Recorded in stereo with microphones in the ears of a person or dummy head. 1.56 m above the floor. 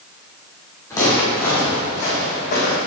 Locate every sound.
0.9 s footsteps: 15° left (ahead or behind), 3 m; by 2.8 s 45° left (ahead or behind), 3.5 m